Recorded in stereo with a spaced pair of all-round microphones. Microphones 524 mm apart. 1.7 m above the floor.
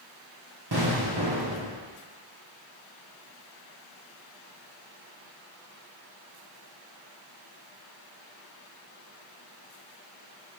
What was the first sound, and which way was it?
An explosion, 45° right (ahead or behind).